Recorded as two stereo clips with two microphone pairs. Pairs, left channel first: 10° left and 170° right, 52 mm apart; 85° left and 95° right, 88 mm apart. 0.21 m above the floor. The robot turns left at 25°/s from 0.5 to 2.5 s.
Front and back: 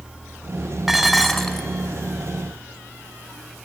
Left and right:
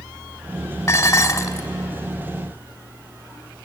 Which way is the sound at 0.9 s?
110° left.